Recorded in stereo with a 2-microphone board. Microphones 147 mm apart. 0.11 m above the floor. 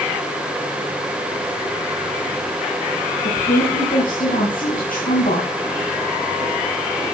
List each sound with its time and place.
3.2 s a woman speaking: 65° left (ahead or behind), 6.5 m